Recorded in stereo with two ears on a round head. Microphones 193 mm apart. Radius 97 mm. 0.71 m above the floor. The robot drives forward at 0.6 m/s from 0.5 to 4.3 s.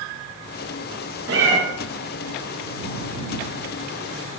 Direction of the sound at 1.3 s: 60° right (ahead or behind).